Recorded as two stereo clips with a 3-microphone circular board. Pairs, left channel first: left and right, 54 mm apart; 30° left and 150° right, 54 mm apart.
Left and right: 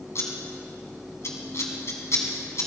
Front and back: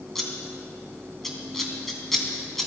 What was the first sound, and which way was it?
Scissors, 115° left.